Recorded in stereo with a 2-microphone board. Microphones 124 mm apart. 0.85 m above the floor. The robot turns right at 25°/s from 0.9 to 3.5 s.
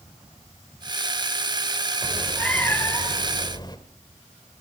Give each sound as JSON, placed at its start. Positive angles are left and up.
{"t": 2.0, "sound": "a cat meowing", "azimuth_deg": 0, "distance_m": 1.5}